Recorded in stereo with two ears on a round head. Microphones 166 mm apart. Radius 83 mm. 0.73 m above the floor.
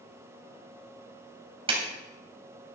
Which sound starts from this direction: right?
A clap, at 1.7 s.